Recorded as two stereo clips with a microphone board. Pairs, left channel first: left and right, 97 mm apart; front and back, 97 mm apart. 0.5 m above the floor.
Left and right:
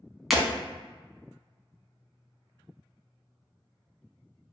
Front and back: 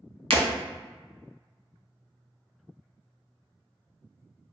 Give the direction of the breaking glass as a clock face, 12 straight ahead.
6 o'clock.